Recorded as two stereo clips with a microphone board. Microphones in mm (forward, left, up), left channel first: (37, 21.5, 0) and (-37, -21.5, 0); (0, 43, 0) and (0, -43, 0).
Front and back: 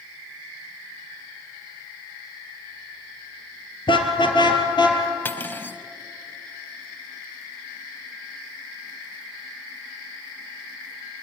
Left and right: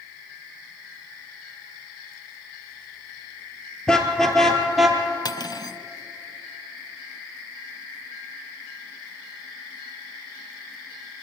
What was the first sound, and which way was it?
A car horn, 10° left.